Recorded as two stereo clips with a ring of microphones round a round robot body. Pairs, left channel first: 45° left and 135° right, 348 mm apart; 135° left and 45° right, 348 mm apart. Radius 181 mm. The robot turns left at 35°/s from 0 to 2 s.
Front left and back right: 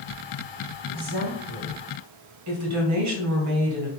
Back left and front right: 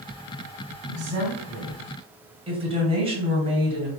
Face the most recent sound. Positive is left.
turn(degrees=-115)